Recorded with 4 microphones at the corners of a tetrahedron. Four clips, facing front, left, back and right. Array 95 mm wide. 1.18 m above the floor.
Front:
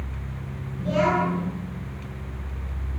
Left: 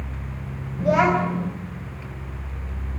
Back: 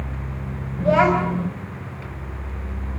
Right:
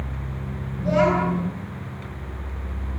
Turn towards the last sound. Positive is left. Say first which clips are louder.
# left 1 dB, back 5 dB
turn(degrees=150)